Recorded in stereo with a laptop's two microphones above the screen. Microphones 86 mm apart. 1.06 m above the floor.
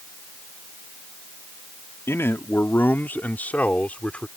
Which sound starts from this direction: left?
A man speaking, at 2.1 s.